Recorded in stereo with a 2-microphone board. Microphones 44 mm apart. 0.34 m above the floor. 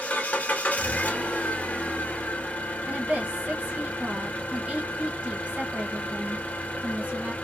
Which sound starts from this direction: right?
A woman speaking, at 2.9 s.